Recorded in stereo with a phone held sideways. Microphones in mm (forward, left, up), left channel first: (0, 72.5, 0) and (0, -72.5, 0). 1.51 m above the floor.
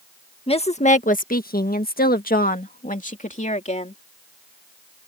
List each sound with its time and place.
0.5 s a woman speaking: 40° left (ahead or behind); by 4.0 s 50° left (ahead or behind)